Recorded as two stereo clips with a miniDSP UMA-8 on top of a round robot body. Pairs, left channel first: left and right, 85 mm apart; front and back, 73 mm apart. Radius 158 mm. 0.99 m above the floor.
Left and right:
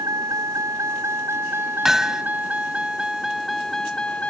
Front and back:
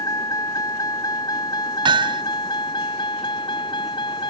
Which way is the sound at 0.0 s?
40° right.